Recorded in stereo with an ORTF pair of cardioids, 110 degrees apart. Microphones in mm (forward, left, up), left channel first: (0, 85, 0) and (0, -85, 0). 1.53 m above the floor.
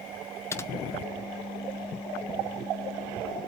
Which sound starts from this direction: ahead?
Typing on a keyboard, at 0.5 s.